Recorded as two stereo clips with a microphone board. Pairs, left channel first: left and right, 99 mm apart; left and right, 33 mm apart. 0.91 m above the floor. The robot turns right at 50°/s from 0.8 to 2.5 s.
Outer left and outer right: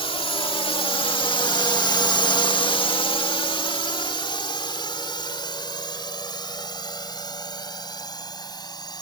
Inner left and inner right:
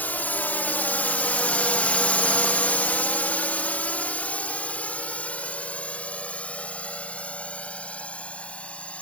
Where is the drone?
65° left (ahead or behind); by 9.0 s 40° left (ahead or behind).